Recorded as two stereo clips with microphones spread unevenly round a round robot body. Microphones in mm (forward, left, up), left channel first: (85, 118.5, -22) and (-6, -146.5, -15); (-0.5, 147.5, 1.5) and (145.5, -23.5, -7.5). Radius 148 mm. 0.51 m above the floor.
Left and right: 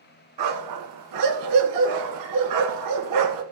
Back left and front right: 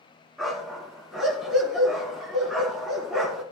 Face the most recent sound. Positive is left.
turn(degrees=-140)